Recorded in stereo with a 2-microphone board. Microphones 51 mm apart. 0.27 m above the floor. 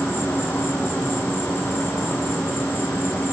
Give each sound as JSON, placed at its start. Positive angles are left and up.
{"t": 0.0, "sound": "an insect", "side_deg": 45, "distance_m": 3.0}